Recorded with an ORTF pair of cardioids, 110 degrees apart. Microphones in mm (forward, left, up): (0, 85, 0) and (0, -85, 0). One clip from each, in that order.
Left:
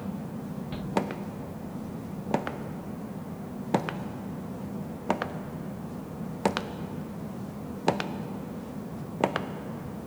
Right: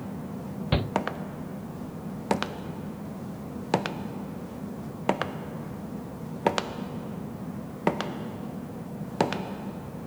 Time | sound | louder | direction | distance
0.7 | a shout | right 14 dB | 65° right | 0.6 m